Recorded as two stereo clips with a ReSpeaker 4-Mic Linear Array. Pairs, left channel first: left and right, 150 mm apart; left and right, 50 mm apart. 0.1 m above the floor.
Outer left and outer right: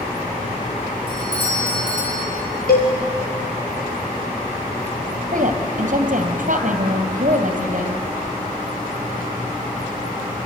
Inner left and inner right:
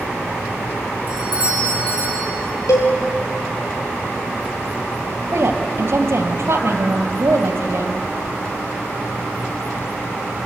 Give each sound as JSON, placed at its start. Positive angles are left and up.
{"t": 1.1, "sound": "a doorbell", "side_deg": -35, "distance_m": 8.5}
{"t": 2.7, "sound": "a cowbell", "side_deg": 80, "distance_m": 4.0}
{"t": 5.3, "sound": "a woman speaking", "side_deg": -60, "distance_m": 2.5}